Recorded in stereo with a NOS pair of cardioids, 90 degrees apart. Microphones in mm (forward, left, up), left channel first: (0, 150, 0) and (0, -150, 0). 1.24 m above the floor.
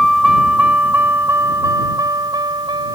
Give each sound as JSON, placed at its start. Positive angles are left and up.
{"t": 0.0, "sound": "a vehicle", "azimuth_deg": 0}